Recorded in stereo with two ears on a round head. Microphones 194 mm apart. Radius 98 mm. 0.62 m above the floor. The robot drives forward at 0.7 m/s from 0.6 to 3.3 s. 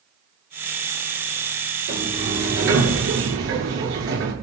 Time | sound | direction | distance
1.9 | a sliding door | 55° right (ahead or behind) | 6 m